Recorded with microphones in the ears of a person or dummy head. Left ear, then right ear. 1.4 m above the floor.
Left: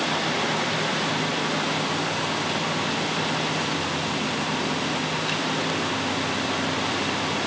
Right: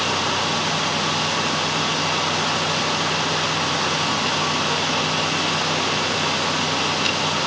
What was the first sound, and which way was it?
Only background noise.